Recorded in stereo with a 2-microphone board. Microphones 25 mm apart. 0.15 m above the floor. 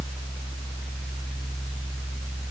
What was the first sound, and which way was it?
Only background noise.